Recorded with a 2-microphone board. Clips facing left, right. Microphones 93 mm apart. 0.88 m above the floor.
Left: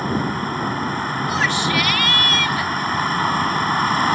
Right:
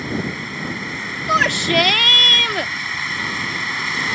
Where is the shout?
65° right (ahead or behind).